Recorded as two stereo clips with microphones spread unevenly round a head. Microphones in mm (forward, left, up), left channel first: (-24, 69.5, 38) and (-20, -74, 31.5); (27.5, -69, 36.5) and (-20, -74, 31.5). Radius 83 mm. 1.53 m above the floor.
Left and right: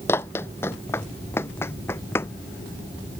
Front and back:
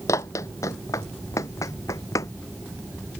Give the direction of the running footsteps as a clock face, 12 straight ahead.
11 o'clock.